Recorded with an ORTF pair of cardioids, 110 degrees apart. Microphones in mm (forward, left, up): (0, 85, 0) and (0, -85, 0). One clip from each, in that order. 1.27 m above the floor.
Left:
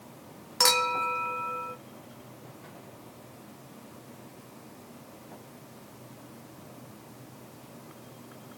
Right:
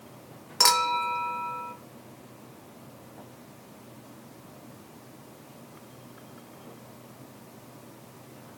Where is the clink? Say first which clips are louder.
Right 2 dB; 5° right, 0.8 m.